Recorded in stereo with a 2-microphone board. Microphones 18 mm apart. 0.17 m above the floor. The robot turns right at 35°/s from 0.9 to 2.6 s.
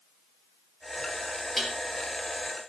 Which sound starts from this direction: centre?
Dishes clattering, at 1.6 s.